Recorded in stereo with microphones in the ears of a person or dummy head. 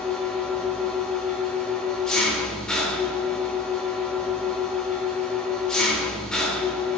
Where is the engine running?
5° left (ahead or behind), 2 m.